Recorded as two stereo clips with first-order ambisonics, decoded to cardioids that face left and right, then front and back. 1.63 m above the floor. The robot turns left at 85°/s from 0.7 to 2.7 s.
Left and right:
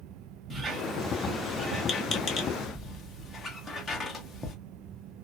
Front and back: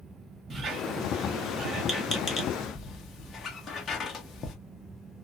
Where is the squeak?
155° right, 0.6 m; by 4.5 s 35° left, 0.6 m.